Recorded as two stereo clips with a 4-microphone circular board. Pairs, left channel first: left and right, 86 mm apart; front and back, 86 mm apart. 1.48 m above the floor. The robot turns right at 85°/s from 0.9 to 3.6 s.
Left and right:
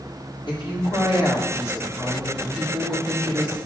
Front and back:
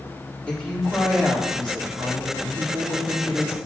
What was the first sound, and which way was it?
A woman speaking, 80° left.